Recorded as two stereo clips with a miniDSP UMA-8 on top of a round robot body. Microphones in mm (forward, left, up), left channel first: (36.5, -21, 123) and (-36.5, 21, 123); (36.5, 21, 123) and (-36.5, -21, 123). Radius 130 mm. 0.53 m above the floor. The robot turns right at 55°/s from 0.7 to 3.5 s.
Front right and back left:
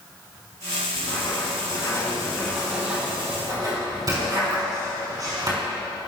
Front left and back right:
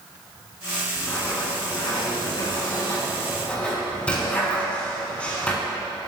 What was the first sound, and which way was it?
Writing, 35° right.